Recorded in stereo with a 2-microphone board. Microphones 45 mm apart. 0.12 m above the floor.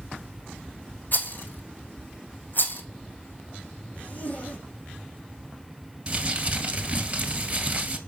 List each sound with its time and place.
1.1 s a rattle: 45° left (ahead or behind), 1.3 m
3.9 s a zipper: 35° left (ahead or behind), 4.5 m
6.1 s crumpling: 30° right (ahead or behind), 1.9 m